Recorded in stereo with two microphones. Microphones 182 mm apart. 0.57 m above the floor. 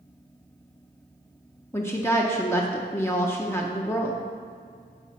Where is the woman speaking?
15° left (ahead or behind), 0.6 m.